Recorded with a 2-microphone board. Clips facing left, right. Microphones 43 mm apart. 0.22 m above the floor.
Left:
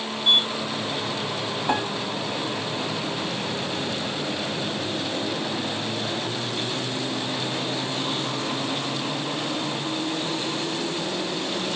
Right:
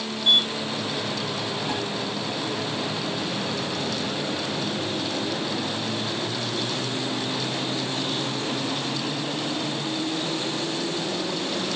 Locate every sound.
0.2 s a sliding door: 5° left (ahead or behind)
1.7 s a piano: 35° left (ahead or behind)